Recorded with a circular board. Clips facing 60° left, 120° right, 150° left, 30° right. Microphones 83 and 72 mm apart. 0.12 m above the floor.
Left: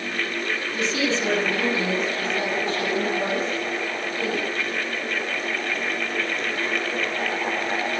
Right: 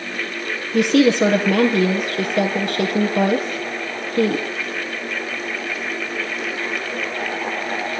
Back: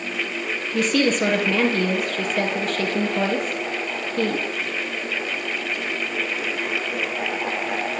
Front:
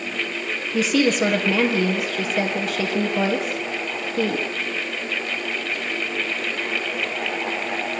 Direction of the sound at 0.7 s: 120° right.